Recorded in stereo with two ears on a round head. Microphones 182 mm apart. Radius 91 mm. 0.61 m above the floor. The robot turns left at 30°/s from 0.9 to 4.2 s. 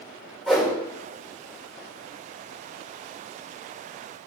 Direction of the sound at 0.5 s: Centre (ahead or behind).